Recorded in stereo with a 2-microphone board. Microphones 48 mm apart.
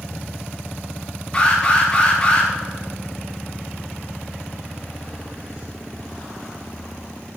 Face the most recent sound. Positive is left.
turn(degrees=15)  # may be behind; listen again after turning